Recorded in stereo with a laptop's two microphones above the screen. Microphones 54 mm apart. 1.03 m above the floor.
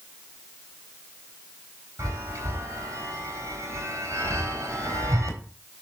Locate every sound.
2.0 s a chime: 80° right, 4.5 m